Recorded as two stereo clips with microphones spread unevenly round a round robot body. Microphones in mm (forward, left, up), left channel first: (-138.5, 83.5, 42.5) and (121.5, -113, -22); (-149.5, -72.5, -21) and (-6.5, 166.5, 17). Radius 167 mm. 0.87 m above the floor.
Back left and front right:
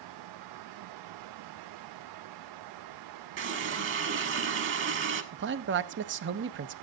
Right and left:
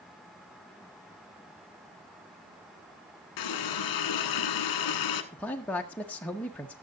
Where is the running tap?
90° right, 1.2 m.